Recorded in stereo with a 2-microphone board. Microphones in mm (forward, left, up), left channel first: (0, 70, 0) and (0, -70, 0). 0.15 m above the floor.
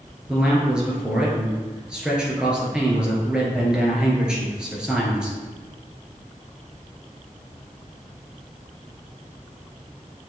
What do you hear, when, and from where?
0.3 s a man speaking: 5° right (ahead or behind), 2.5 m